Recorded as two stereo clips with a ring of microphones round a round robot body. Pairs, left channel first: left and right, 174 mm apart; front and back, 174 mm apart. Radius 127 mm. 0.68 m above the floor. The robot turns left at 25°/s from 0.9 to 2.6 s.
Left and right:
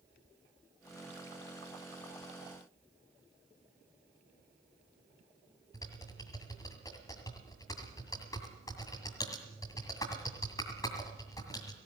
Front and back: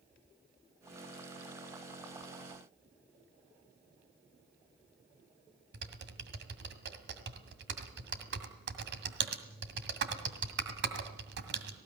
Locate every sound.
5.7 s typing on a keyboard: 170° left, 2.0 m